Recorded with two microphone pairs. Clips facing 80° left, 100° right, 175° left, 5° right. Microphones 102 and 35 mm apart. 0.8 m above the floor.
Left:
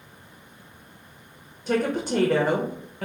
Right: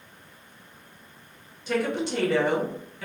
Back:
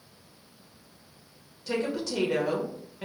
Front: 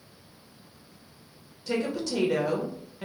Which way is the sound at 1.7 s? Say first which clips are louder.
Left 2 dB, front 1 dB; 90° left.